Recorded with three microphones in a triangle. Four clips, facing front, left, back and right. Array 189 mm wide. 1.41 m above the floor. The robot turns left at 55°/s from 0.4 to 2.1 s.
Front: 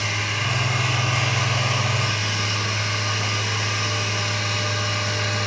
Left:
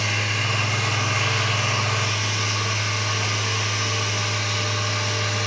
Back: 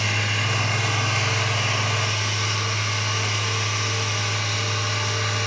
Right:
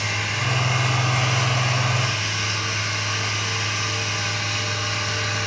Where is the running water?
145° left, 1.9 m; by 5.5 s 50° left, 1.9 m.